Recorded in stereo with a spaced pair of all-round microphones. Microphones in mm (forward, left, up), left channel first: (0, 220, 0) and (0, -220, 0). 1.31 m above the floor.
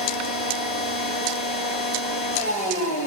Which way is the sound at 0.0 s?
15° left (ahead or behind).